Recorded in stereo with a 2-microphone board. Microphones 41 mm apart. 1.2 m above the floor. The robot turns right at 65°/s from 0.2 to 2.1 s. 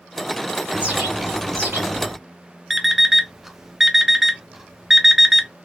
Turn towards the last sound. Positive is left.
turn(degrees=-5)  # may be behind; listen again after turning